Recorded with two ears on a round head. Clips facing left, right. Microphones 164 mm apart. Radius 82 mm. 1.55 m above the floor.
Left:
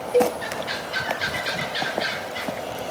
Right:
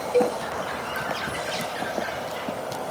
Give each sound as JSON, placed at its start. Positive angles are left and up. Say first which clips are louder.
{"t": 0.1, "sound": "a cowbell", "louder": "left 2 dB", "side_deg": 15}